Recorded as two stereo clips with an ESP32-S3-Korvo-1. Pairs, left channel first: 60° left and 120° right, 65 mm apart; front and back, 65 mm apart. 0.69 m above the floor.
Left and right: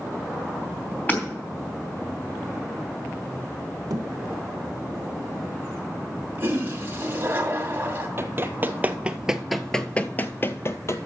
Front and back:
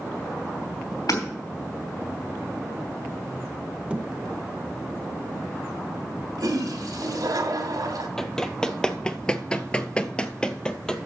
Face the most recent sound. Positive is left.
turn(degrees=75)